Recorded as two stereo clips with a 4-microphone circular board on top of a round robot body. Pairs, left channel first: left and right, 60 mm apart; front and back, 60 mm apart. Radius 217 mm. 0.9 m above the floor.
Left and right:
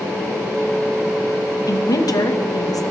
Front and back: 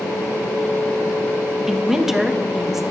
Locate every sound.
1.7 s a woman speaking: 95° left, 1.4 m